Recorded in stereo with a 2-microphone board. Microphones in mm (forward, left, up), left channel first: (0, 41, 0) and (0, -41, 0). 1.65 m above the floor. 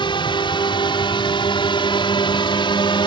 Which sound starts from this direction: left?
A drone, at 0.0 s.